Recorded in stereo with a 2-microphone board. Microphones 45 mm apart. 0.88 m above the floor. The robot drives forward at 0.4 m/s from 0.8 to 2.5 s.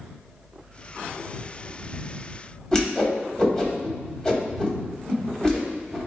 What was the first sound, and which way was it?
A whoosh, 15° left (ahead or behind).